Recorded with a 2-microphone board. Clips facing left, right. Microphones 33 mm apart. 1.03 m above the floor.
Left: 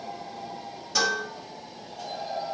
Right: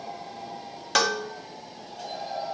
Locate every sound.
0.9 s dishes clattering: 70° right (ahead or behind), 1.1 m